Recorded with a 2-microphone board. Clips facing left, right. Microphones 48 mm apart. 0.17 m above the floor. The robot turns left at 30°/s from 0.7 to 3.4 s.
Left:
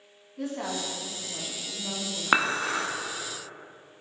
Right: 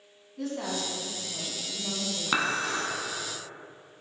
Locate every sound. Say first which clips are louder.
0.4 s a woman speaking: even; 15° left (ahead or behind), 1.6 m; by 2.2 s centre (ahead or behind), 1.6 m
2.3 s dishes clattering: left 4 dB; 35° left (ahead or behind), 0.8 m; by 2.9 s 40° left (ahead or behind), 0.8 m